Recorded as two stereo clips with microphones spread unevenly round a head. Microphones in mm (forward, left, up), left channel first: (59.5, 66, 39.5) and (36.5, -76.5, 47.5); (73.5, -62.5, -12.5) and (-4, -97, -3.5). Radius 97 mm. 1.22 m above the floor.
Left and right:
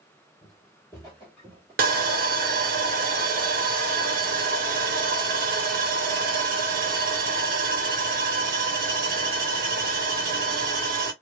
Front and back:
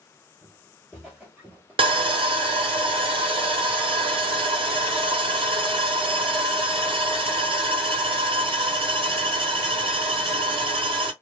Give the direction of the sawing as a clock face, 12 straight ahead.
5 o'clock.